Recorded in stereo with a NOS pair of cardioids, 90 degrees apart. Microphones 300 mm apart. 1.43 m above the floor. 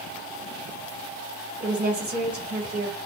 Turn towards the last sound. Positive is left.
turn(degrees=-25)